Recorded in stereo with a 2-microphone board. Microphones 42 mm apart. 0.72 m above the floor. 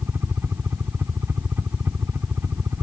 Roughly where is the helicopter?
Right.